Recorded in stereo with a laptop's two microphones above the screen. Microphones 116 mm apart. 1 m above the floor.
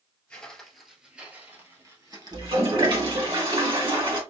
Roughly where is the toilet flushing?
Right.